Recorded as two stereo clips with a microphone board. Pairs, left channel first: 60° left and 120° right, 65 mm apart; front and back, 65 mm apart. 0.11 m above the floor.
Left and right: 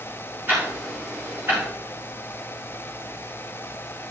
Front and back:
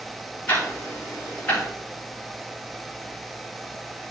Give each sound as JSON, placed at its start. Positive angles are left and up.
{"t": 0.5, "sound": "ticking", "azimuth_deg": -65, "distance_m": 3.0}